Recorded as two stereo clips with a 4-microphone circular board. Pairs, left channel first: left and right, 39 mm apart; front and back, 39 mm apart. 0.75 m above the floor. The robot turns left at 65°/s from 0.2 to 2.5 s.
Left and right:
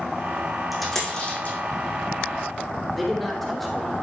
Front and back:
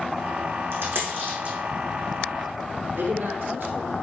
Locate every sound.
0.7 s a dropped coin: 175° right, 4 m; by 1.6 s 130° left, 4 m
2.9 s a man speaking: straight behind, 3 m